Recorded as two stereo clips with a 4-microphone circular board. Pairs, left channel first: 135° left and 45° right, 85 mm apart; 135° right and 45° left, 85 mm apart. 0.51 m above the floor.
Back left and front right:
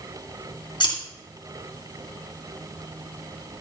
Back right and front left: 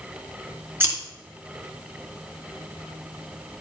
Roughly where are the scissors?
Left.